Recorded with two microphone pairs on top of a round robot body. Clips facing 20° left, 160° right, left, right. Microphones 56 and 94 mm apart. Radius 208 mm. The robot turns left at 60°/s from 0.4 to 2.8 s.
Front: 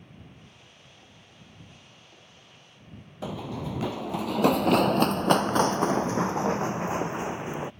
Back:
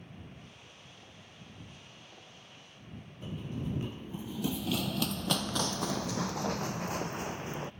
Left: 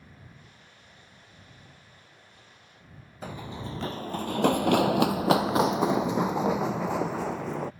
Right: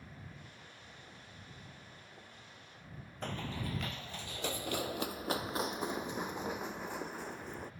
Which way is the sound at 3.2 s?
5° left.